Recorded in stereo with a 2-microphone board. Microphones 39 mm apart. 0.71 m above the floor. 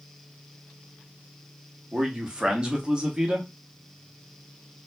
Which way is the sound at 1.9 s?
25° right (ahead or behind).